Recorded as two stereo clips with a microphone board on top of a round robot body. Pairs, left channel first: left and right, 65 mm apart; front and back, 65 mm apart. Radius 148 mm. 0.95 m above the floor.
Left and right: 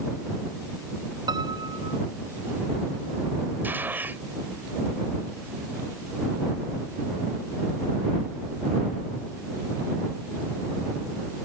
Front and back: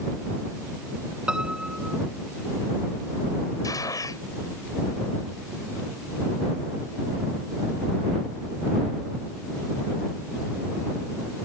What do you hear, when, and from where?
1.3 s a piano: 105° right
3.6 s a gunshot: 30° right